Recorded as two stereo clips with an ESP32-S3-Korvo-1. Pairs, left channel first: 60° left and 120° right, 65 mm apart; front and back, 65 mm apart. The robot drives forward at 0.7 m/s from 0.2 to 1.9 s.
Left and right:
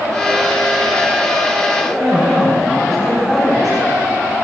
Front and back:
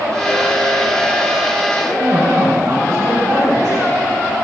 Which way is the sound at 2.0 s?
150° left.